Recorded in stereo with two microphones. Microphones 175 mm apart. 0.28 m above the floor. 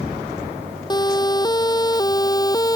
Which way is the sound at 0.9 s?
25° left (ahead or behind).